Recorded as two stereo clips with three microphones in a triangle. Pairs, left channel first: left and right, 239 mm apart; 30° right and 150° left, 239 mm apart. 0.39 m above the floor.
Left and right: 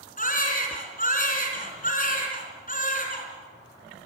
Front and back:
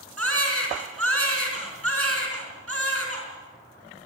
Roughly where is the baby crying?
Behind left.